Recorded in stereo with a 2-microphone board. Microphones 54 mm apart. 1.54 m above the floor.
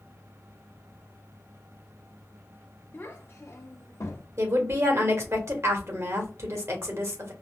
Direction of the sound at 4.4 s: 60° right (ahead or behind).